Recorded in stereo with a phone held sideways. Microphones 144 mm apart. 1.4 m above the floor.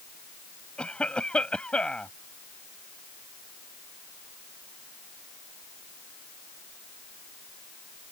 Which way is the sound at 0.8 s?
5° left (ahead or behind).